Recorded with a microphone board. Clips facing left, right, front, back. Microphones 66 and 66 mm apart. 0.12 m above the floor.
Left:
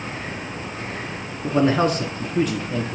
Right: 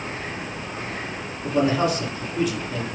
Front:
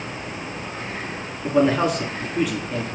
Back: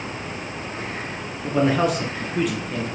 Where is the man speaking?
85° left, 1.5 m.